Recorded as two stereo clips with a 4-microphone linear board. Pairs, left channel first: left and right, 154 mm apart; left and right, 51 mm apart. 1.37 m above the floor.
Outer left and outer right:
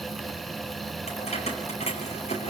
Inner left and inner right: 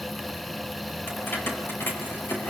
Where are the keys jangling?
45° left (ahead or behind), 5 m.